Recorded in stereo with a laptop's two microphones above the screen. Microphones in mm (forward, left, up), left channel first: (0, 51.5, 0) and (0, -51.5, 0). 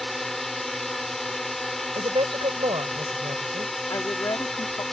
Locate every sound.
0.0 s a drone: centre (ahead or behind)
1.9 s a woman speaking: 60° right (ahead or behind)
3.9 s a woman speaking: 40° left (ahead or behind)